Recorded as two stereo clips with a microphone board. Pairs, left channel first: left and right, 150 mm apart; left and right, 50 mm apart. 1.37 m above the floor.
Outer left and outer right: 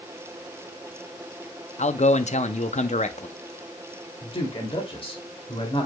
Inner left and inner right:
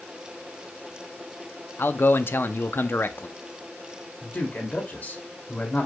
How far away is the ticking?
No ticking in this recording.